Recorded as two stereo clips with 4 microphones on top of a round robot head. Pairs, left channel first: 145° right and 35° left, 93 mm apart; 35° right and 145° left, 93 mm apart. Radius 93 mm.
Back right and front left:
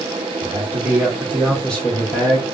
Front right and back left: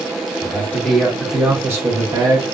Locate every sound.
0.4 s a man speaking: straight ahead, 1.4 m; by 2.4 s 155° left, 1.8 m